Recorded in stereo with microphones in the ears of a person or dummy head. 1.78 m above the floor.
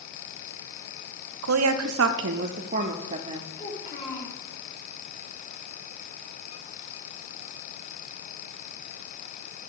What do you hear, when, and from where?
1.4 s a woman speaking: 75° right (ahead or behind), 0.7 m; by 3.5 s 30° right (ahead or behind), 1.2 m
3.6 s a child speaking: 40° left (ahead or behind), 3.5 m